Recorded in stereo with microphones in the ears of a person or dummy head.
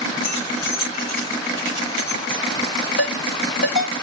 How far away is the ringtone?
About 1.8 m.